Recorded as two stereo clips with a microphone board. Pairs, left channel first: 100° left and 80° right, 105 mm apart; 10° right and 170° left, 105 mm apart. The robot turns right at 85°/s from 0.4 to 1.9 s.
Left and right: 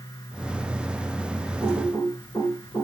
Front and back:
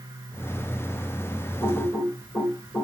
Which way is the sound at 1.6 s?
10° left.